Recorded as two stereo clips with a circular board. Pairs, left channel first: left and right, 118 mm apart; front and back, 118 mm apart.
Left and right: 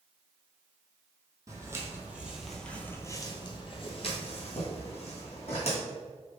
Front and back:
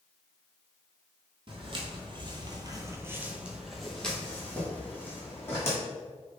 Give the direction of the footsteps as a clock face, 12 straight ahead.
5 o'clock.